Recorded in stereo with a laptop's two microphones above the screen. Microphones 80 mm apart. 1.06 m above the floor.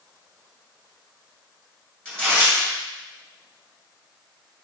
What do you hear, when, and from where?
2.0 s tearing paper: 15° left (ahead or behind), 2 m